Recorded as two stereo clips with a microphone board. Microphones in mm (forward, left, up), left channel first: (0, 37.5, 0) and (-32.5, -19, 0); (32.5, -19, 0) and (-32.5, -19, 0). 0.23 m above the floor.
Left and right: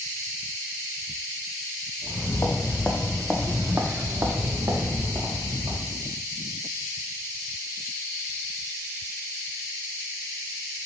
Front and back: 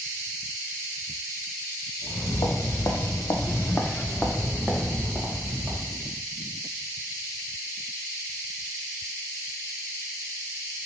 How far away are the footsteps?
About 0.9 m.